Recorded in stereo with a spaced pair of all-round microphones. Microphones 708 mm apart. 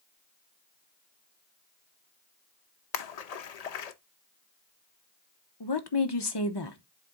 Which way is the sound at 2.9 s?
60° left (ahead or behind).